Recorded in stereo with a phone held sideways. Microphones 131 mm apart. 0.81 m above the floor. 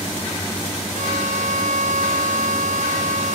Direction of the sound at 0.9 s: 70° right (ahead or behind).